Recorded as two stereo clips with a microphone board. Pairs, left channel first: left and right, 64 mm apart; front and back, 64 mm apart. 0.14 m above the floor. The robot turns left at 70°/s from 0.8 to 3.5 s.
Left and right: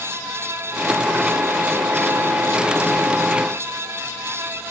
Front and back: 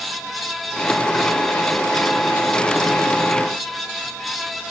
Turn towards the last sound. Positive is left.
No sound to turn to.